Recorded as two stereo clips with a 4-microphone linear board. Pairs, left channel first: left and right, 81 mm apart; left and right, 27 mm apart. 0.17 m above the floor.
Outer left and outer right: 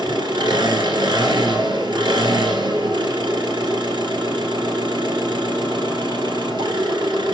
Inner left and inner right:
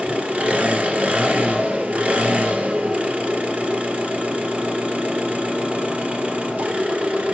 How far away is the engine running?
About 1.7 m.